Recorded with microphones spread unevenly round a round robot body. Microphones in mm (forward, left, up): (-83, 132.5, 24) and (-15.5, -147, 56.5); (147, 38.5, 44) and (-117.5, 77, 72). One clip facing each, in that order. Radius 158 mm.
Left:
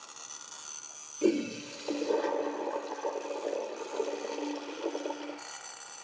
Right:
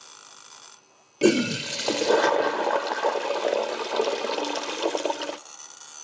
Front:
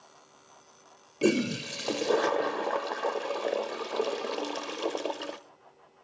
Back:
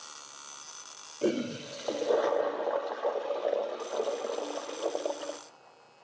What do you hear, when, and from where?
1.2 s a toilet flushing: 70° right, 0.7 m